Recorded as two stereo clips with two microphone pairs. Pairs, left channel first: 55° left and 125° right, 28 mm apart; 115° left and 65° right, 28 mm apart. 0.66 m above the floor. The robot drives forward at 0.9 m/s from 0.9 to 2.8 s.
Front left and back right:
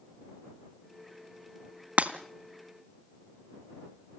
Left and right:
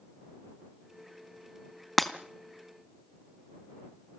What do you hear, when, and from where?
2.0 s breaking glass: 155° right, 1.4 m; by 2.1 s 160° right, 1.5 m